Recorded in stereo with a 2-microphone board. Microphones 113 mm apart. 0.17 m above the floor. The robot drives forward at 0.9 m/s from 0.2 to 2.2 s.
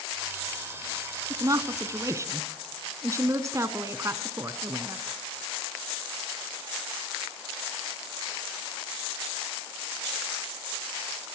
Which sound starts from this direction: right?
A woman speaking, at 1.3 s.